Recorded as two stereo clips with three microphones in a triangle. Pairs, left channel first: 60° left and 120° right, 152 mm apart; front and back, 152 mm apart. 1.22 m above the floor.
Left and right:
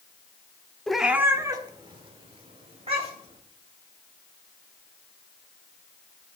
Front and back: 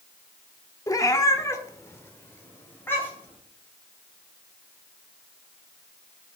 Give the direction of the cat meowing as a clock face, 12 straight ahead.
1 o'clock.